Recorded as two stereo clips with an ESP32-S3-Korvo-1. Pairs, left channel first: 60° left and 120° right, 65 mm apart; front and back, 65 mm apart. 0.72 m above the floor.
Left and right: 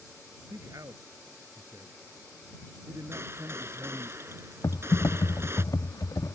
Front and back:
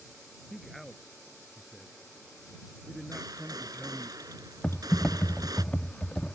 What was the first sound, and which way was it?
A man speaking, 90° right.